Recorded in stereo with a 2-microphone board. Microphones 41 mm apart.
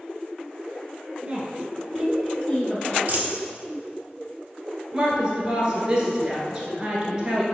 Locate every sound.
1.2 s a woman speaking: 30° right (ahead or behind), 1.2 m; by 3.0 s 25° left (ahead or behind), 1.1 m
3.1 s a dropped coin: 40° right (ahead or behind), 1.0 m
4.9 s a woman speaking: 20° right (ahead or behind), 1.1 m